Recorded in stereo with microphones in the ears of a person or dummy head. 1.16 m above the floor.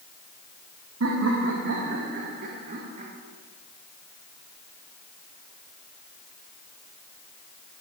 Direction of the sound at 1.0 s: 75° right (ahead or behind).